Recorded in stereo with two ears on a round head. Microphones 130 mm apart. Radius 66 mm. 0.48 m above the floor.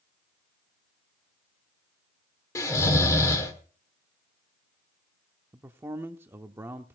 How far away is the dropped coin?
I don't hear a dropped coin.